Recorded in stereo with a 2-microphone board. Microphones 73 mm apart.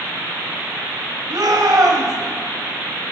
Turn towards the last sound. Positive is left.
turn(degrees=-70)  # may be behind; listen again after turning